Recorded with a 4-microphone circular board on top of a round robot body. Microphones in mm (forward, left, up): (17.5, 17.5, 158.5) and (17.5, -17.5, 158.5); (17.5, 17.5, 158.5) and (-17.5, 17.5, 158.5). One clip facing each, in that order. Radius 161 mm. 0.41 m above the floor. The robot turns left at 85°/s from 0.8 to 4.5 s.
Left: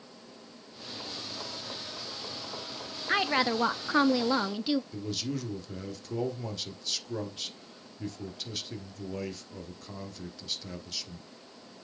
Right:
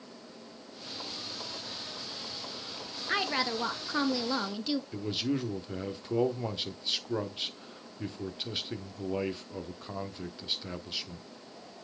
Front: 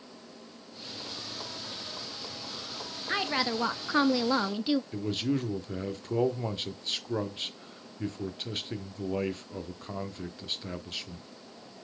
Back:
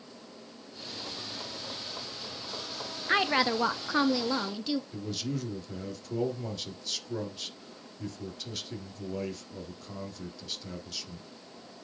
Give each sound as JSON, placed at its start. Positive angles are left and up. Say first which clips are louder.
{"t": 3.1, "sound": "a woman speaking", "louder": "left 4 dB, back 4 dB", "azimuth_deg": 150, "distance_m": 0.8}
{"t": 4.9, "sound": "a man speaking", "louder": "right 3 dB, front 5 dB", "azimuth_deg": -35, "distance_m": 1.4}